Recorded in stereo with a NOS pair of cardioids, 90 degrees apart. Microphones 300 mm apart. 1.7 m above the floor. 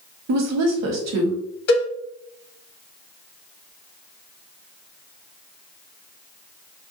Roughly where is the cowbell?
Ahead left.